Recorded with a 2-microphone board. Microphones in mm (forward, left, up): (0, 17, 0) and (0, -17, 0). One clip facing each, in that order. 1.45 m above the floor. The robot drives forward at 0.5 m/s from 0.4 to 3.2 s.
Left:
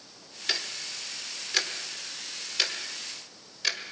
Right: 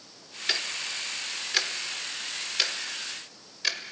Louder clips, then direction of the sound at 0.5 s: Right 2 dB; 10° right (ahead or behind).